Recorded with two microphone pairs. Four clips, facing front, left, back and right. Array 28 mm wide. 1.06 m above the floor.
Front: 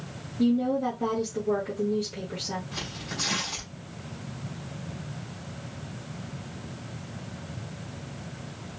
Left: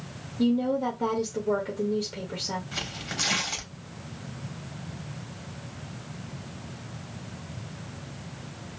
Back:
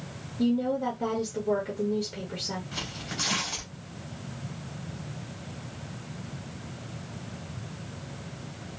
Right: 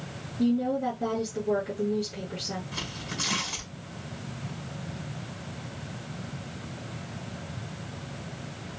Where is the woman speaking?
90° left, 2.5 m.